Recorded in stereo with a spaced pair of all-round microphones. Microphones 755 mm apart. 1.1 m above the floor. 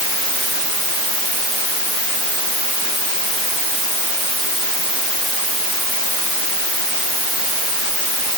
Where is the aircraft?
I don't hear an aircraft.